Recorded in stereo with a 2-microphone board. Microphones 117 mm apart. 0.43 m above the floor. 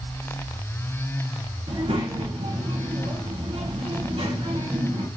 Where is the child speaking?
70° right (ahead or behind), 1.7 m.